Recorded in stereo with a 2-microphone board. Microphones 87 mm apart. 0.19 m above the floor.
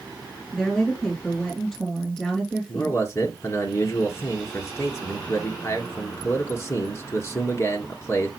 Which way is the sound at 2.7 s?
30° left (ahead or behind).